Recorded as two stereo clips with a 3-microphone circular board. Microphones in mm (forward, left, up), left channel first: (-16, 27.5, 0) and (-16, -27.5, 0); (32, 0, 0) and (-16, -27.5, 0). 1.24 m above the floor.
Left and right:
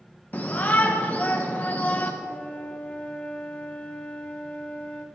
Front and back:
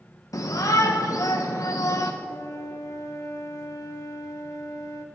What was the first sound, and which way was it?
A shout, 30° left.